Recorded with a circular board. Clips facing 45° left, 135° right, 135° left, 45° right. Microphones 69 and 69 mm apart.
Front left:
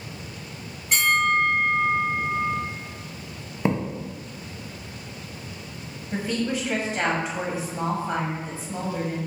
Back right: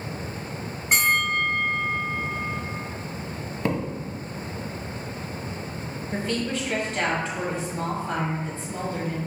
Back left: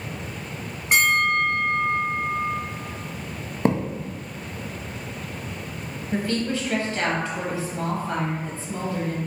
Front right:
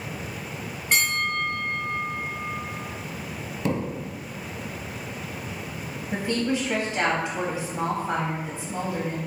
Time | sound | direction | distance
0.9 | a bell | 160° right | 1.7 m
3.6 | a thud | 110° left | 0.7 m
6.1 | a woman speaking | 15° right | 1.0 m